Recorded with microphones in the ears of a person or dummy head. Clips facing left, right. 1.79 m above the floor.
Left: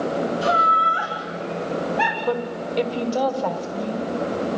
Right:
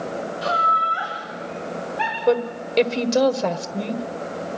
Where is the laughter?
40° left (ahead or behind), 2.5 m; by 2.2 s 60° left (ahead or behind), 3 m.